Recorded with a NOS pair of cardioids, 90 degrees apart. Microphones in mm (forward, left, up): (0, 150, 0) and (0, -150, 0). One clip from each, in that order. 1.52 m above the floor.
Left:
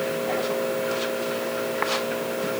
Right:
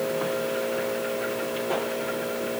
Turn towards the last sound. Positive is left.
No sound to turn to.